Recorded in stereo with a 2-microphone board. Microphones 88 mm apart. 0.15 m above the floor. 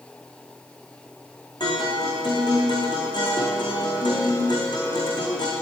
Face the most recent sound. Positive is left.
turn(degrees=55)  # may be behind; listen again after turning